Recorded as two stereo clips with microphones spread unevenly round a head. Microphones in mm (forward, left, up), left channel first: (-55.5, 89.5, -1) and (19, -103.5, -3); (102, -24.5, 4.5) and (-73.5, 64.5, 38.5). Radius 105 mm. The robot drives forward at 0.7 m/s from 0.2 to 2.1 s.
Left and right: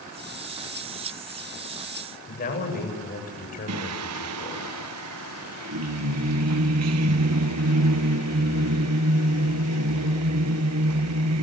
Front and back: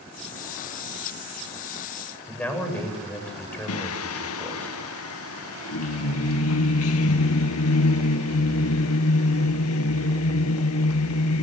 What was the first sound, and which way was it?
A man speaking, 60° left.